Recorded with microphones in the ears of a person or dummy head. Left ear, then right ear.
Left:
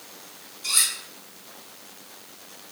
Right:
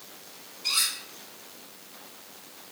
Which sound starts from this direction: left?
Cutlery clinking, at 0.6 s.